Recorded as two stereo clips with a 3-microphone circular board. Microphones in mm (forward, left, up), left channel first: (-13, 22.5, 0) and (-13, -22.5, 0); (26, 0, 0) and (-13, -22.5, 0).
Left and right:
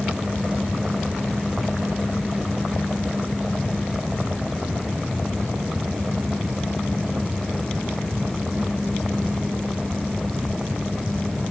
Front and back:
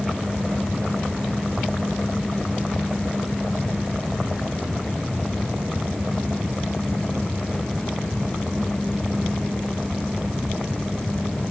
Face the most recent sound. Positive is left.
No sound to turn to.